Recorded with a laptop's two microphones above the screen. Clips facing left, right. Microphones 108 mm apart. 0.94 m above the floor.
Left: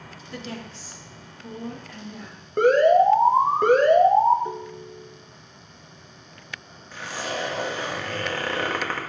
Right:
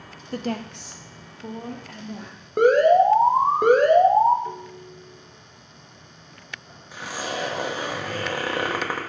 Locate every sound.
0.3 s a woman speaking: 40° right (ahead or behind), 0.6 m; by 2.4 s 80° right, 2 m
2.6 s an alarm: 10° right (ahead or behind), 1.3 m
4.5 s a ringtone: 20° left (ahead or behind), 0.5 m
6.9 s a zipper: 15° right (ahead or behind), 1.3 m